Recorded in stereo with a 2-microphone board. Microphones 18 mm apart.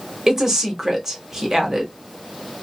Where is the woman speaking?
25° right (ahead or behind), 1.2 m.